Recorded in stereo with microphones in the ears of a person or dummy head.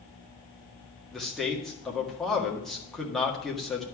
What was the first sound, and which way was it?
A man speaking, 5° right (ahead or behind).